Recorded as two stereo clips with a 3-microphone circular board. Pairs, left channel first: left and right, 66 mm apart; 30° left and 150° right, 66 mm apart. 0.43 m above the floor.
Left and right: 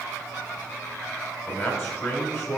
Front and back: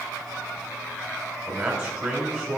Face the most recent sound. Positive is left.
turn(degrees=165)